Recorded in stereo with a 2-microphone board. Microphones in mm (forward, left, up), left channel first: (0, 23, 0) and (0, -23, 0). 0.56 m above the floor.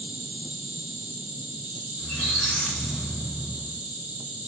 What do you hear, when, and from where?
0.0 s an insect: 35° right (ahead or behind), 1.5 m
2.0 s a squeak: 25° left (ahead or behind), 1.0 m